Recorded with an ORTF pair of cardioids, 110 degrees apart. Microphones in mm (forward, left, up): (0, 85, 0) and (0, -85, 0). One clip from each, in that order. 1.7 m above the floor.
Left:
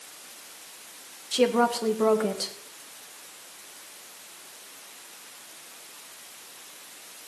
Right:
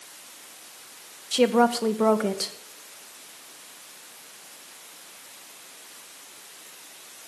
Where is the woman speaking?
15° right, 1.8 m.